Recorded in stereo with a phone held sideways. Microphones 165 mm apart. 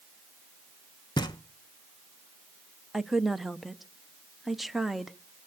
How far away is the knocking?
About 0.9 m.